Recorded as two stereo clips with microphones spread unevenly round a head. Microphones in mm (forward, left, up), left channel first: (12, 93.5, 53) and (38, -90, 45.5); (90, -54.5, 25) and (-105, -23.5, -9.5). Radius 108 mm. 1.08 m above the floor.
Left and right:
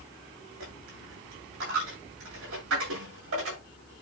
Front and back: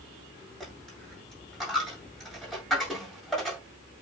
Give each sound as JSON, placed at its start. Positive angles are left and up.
{"t": 0.6, "sound": "a dropped coin", "azimuth_deg": -100, "distance_m": 8.0}